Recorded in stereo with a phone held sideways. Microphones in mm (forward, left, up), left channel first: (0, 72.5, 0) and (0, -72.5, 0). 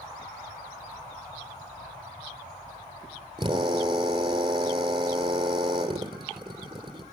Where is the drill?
35° right (ahead or behind), 5 m.